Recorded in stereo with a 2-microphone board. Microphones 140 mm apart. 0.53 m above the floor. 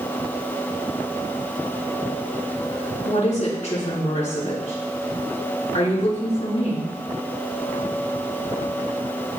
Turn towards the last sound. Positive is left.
turn(degrees=55)  # may be behind; listen again after turning